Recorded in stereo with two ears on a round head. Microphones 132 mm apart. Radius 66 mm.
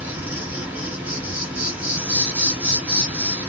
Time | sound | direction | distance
0.0 | an insect | 10° right (ahead or behind) | 2.5 m